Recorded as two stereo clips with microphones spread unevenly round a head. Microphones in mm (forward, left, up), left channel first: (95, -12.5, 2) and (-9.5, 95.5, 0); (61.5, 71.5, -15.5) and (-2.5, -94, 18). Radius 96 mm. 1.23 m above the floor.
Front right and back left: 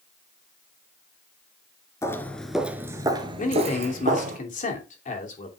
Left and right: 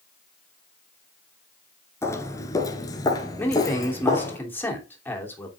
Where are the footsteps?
10° right, 1.2 m; by 4.4 s 150° left, 1.9 m.